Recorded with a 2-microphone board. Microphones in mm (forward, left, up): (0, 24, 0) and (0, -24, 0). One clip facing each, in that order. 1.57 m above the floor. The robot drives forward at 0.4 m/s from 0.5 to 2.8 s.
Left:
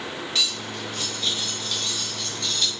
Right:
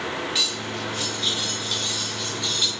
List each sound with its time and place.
0.3 s cutlery clinking: 5° right (ahead or behind), 2.5 m; by 2.7 s 10° right (ahead or behind), 1.6 m